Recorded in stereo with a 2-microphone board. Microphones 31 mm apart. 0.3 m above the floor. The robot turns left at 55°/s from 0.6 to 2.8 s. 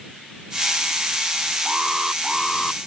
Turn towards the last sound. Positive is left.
turn(degrees=145)